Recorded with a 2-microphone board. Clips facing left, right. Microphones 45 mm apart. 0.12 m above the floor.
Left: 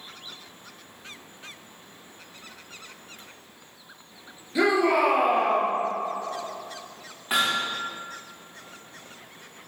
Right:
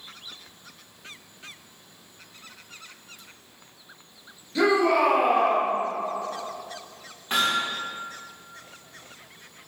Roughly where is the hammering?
Centre.